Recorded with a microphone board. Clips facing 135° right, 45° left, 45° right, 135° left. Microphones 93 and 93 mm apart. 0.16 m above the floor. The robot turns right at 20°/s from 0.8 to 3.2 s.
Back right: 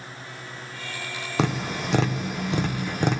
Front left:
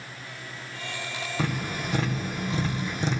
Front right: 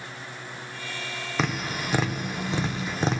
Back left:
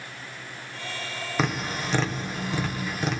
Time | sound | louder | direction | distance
1.4 | tapping | back right 5 dB, back left 1 dB | 135° right | 1.7 m